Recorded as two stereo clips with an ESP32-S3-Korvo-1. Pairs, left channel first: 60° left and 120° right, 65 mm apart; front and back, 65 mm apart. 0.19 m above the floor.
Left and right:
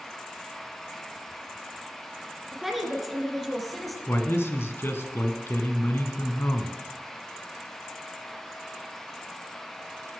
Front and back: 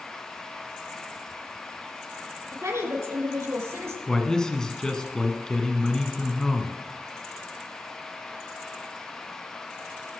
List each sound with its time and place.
2.5 s a woman speaking: 155° left, 3 m; by 4.0 s 150° left, 3.5 m
4.1 s a man speaking: 75° left, 1.5 m